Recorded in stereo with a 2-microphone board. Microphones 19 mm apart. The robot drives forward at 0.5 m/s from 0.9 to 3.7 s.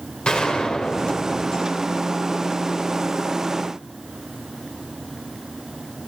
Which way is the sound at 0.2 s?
70° left (ahead or behind).